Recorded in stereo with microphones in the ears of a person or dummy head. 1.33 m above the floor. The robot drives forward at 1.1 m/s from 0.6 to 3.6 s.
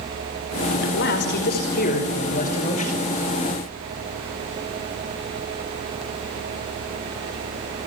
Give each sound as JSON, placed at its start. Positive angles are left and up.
{"t": 0.8, "sound": "a man speaking", "side_deg": 55, "distance_m": 4.5}